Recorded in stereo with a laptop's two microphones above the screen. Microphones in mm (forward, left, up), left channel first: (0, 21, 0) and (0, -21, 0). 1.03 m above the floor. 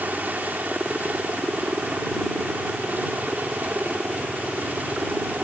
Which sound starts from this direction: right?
A helicopter, at 0.0 s.